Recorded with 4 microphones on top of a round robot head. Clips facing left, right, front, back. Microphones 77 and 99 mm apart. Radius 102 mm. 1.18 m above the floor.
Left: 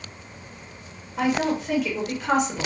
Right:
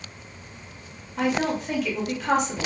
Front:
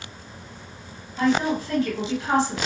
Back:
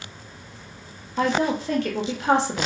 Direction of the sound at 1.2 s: 175° left.